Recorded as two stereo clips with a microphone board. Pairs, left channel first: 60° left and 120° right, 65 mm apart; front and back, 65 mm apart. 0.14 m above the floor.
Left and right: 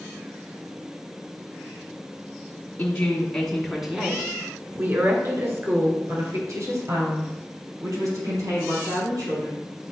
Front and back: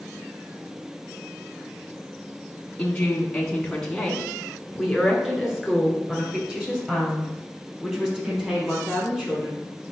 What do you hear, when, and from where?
2.8 s a woman speaking: 50° left, 1.4 m; by 9.6 s 110° right, 4.5 m